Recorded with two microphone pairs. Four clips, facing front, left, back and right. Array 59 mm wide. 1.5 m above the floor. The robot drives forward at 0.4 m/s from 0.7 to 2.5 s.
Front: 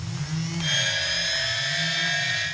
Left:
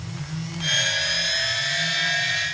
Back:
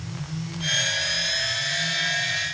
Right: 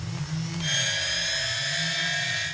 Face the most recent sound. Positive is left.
No sound to turn to.